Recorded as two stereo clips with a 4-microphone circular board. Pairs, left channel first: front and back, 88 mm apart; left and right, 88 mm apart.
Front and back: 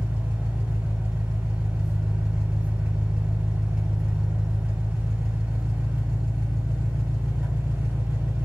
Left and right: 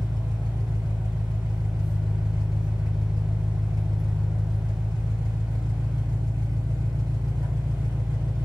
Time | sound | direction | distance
0.0 | an engine running | 110° right | 2 m